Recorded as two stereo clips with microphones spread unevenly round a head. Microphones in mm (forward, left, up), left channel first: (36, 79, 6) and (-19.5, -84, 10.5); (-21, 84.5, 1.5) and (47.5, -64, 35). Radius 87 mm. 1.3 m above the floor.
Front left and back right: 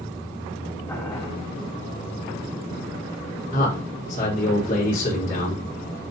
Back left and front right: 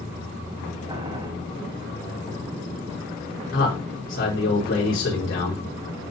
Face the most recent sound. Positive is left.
turn(degrees=115)